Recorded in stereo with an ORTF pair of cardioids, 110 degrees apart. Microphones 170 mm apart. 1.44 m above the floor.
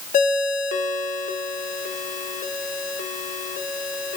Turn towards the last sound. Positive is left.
turn(degrees=50)